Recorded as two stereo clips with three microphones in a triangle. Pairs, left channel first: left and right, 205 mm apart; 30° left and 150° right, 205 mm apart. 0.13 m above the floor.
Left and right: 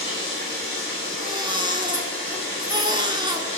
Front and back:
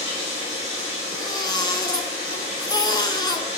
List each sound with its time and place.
0.0 s running water: 155° left, 4.5 m
1.1 s a baby crying: 35° right, 0.5 m